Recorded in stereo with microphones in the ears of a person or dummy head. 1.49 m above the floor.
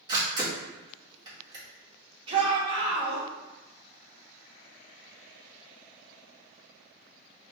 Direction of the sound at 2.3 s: 35° right (ahead or behind).